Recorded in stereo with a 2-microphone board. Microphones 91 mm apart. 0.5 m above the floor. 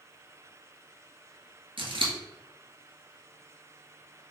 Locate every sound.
1.8 s scissors: 75° right (ahead or behind), 1.4 m